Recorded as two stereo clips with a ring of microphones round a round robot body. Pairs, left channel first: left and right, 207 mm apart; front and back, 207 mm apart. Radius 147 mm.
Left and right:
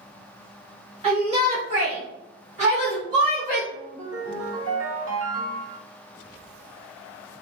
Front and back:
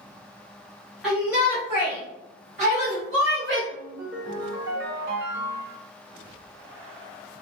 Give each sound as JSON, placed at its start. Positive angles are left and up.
{"t": 1.0, "sound": "a shout", "azimuth_deg": -90, "distance_m": 1.2}
{"t": 3.7, "sound": "a ringtone", "azimuth_deg": -130, "distance_m": 0.9}